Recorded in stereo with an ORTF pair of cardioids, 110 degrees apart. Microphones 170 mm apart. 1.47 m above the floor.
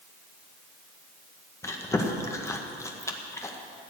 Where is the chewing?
15° left, 1.8 m.